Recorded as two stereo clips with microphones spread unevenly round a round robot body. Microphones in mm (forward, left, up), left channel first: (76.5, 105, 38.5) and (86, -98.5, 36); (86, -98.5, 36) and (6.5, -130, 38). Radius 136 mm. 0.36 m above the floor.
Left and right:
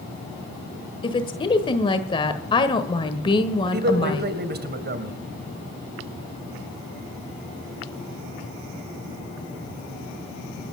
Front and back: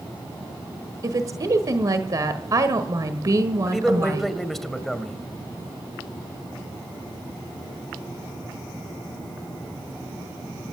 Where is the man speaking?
65° right, 2.5 m.